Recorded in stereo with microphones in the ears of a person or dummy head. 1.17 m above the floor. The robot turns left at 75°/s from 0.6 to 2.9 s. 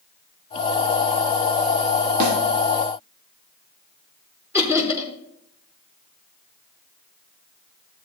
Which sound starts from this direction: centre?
Laughter, at 4.5 s.